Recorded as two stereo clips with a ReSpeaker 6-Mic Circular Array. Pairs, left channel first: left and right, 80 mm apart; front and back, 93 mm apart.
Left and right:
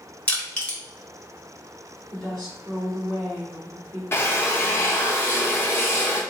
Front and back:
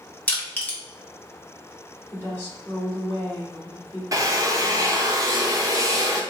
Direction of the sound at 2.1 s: 65° right.